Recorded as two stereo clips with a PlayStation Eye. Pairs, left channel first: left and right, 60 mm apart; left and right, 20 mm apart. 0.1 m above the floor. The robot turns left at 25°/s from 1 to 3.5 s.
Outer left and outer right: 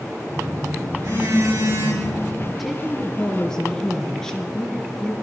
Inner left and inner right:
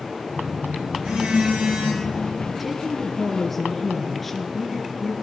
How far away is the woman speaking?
About 1.5 m.